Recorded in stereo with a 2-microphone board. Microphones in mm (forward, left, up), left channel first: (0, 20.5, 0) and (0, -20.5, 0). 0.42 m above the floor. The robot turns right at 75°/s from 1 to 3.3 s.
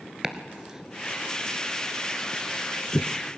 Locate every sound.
0.2 s chopping: 15° right (ahead or behind), 1.3 m; by 3.1 s 40° left (ahead or behind), 1.3 m